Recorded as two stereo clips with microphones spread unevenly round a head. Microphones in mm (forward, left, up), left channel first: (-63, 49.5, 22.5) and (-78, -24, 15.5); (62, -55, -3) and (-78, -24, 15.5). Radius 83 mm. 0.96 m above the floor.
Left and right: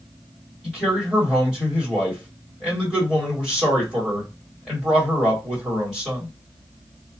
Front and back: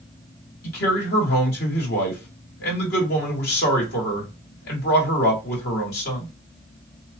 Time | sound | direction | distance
0.6 | a man speaking | 15° right | 1.7 m